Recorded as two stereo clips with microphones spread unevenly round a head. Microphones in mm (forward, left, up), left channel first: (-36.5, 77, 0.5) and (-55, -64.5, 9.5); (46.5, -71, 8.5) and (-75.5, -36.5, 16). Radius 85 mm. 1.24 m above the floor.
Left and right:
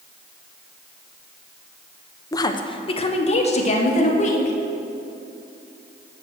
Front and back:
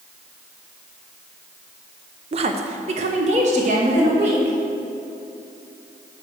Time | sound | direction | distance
2.3 | a woman speaking | 135° left | 0.7 m